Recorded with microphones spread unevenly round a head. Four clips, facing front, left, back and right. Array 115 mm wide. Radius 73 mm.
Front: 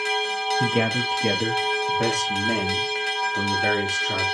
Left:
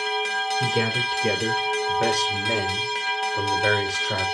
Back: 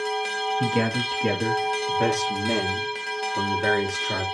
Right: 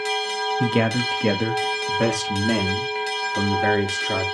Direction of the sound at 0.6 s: 65° right.